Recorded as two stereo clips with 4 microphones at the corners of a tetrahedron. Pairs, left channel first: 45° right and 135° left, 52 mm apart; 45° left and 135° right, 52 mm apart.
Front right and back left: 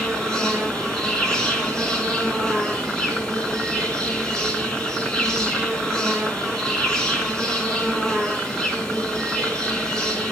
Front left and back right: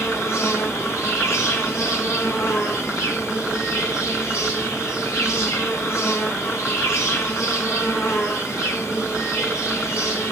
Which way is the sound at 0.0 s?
30° left.